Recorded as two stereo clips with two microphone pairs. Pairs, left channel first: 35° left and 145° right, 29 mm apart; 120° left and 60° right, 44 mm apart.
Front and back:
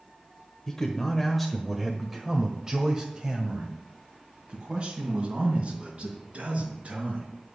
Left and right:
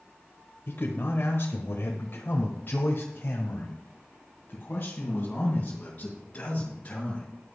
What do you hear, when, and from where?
0.7 s a man speaking: 100° left, 1.5 m; by 7.3 s 175° right, 4.5 m